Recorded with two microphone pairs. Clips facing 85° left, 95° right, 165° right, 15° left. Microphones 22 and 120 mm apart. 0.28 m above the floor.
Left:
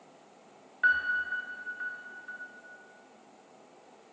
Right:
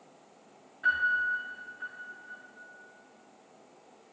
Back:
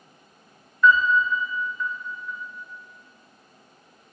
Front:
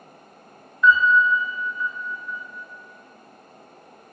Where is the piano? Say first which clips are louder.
Even, front 2 dB; 95° left, 4.5 m.